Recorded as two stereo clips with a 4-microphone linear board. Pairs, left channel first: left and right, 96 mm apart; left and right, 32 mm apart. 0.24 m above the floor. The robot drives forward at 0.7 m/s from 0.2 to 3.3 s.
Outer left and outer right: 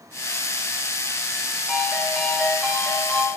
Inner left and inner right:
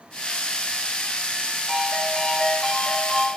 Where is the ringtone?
5° left (ahead or behind), 3.5 m.